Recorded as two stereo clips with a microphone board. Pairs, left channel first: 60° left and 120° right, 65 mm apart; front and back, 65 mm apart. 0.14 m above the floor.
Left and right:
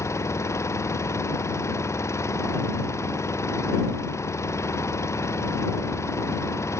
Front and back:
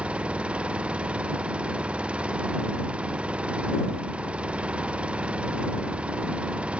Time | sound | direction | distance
0.0 | an engine running | 105° left | ?